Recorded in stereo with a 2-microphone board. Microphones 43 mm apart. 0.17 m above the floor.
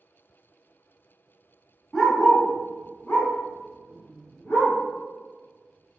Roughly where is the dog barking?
Centre.